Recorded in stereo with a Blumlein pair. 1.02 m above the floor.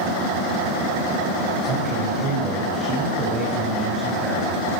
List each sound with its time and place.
1.6 s a man speaking: 25° right, 6 m; by 4.6 s 15° right, 7.5 m